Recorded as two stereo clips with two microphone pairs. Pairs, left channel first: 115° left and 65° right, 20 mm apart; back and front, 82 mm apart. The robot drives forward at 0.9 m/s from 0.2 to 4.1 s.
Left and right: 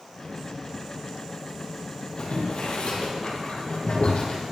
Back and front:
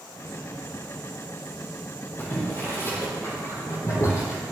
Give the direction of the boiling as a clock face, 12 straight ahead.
8 o'clock.